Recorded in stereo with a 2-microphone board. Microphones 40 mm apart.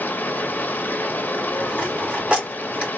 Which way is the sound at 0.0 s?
50° left (ahead or behind).